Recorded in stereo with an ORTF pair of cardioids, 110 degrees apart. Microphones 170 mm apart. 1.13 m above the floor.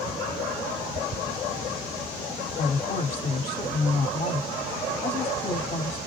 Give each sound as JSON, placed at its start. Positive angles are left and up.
{"t": 2.6, "sound": "a woman speaking", "azimuth_deg": 40, "distance_m": 2.0}